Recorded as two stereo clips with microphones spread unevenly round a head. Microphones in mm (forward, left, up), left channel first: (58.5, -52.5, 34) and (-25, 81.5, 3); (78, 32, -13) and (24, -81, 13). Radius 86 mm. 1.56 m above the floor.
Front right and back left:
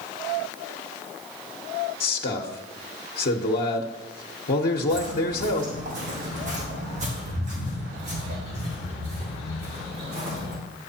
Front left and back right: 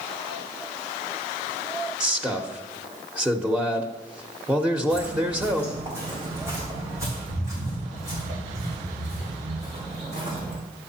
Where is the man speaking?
35° right, 1.1 m.